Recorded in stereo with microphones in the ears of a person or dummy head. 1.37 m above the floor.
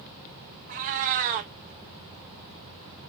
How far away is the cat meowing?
About 0.7 m.